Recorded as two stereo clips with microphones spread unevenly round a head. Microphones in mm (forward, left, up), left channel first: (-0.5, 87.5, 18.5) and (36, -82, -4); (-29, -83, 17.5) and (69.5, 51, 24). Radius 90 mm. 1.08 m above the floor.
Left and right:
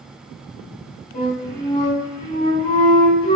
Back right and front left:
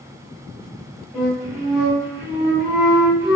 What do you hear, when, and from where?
1.1 s a flute: 145° left, 2 m